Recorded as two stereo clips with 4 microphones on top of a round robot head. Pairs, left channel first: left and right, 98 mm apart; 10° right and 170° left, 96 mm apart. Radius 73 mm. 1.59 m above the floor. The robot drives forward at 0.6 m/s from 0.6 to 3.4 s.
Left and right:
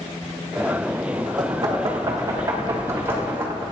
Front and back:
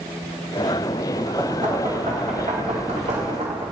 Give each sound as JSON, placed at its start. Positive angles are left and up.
{"t": 1.4, "sound": "knocking", "azimuth_deg": -135, "distance_m": 1.3}